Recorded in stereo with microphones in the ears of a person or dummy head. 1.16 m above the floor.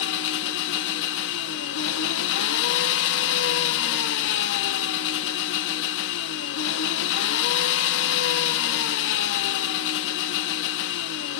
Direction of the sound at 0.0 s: 65° left (ahead or behind).